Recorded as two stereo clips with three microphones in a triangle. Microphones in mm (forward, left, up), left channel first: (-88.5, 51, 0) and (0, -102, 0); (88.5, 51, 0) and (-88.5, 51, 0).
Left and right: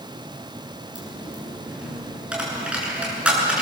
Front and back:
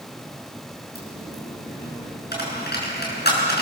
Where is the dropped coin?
25° left, 7 m.